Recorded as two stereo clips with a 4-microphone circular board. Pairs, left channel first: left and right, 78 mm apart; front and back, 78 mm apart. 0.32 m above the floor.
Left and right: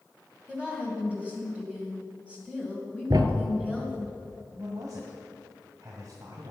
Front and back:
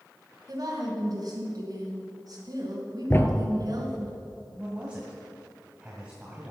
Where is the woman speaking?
160° right, 2.5 m.